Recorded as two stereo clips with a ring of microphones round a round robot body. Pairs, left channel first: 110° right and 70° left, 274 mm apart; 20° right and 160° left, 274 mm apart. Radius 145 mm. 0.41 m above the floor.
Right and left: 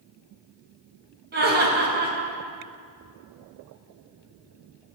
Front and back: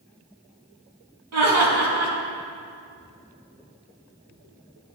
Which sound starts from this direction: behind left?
Laughter, at 1.3 s.